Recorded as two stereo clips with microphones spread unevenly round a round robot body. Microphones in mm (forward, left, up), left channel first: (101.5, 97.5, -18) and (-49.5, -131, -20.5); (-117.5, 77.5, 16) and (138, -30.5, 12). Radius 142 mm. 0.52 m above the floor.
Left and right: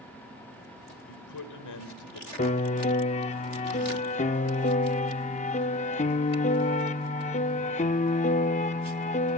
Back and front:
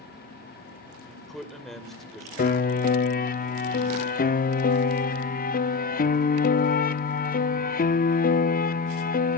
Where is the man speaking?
70° left, 2.5 m.